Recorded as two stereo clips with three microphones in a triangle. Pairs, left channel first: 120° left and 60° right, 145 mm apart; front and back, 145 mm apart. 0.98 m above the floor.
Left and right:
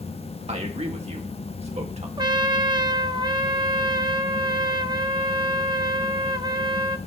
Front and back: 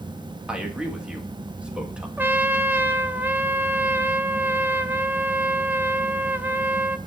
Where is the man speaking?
95° right, 1.5 m.